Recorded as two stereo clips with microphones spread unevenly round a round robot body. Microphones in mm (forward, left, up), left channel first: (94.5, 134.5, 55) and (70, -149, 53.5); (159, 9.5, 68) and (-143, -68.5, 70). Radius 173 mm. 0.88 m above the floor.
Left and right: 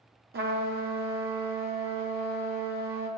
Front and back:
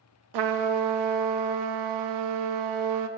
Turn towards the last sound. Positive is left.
turn(degrees=-160)